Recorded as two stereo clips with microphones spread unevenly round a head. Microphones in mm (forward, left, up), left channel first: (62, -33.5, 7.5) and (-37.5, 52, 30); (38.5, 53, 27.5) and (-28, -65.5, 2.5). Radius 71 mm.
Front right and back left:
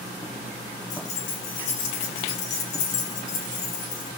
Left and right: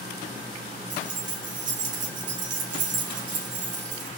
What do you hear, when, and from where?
0.9 s keys jangling: 85° right, 2.5 m